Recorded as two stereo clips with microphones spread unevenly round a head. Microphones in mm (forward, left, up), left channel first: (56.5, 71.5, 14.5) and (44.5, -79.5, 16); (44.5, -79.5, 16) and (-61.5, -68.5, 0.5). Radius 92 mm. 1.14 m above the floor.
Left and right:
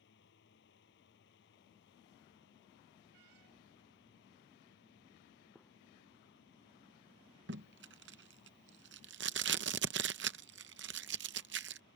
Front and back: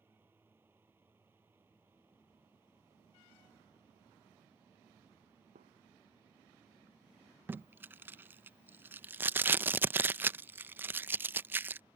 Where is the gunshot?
170° left.